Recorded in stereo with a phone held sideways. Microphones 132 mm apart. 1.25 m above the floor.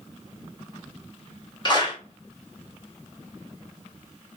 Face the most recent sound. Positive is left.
turn(degrees=35)  # may be behind; listen again after turning